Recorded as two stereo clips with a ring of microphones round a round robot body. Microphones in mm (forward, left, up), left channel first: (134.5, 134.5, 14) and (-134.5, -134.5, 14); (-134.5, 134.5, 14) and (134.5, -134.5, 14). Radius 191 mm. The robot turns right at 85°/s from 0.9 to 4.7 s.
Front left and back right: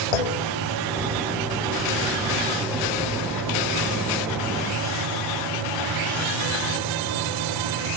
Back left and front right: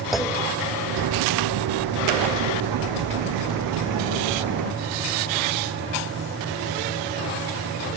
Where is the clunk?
45° left.